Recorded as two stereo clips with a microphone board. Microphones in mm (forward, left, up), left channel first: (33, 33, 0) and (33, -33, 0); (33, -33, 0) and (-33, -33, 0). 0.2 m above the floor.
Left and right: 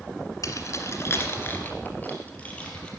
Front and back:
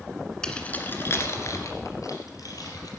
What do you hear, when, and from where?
0.4 s keys jangling: 75° left, 1.6 m; by 2.9 s 20° left, 4 m